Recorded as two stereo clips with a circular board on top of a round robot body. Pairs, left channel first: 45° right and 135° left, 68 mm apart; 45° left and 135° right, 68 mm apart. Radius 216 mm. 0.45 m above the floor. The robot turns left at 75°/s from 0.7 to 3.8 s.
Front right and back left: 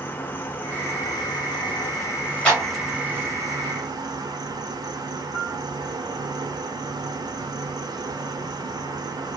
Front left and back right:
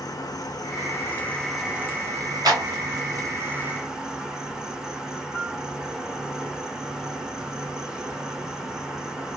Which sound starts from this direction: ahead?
An insect, at 0.0 s.